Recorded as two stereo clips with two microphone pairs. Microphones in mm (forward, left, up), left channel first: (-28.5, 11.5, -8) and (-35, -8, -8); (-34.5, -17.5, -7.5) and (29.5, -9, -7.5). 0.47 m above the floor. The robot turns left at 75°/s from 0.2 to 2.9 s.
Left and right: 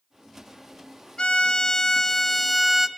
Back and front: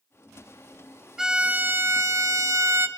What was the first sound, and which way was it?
A violin, 90° left.